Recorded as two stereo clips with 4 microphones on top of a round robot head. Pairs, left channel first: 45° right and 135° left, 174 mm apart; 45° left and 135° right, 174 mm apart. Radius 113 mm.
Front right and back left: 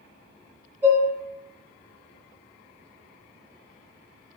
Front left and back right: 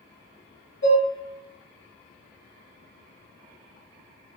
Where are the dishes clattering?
60° left, 0.8 m.